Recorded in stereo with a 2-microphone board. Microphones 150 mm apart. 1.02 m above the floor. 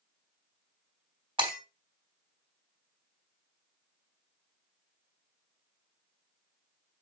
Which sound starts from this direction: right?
Breaking glass, at 1.4 s.